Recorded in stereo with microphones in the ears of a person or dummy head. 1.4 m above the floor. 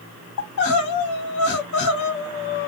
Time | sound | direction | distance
0.4 | crying | 70° left (ahead or behind) | 1.5 m